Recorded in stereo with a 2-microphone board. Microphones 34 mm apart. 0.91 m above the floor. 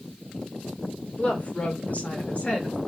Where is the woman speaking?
40° left (ahead or behind), 1.2 m; by 2.8 s 35° left (ahead or behind), 1.1 m.